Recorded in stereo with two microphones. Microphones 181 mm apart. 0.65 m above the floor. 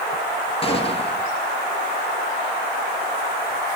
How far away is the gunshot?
About 2.5 m.